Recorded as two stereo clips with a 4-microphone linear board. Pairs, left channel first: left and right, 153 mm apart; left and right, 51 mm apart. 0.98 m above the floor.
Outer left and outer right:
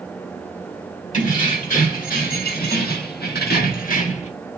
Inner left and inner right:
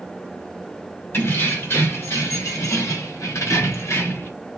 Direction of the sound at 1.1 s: 55° left (ahead or behind).